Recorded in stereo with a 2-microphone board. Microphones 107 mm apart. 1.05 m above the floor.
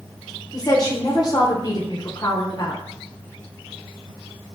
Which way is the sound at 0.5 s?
35° left (ahead or behind).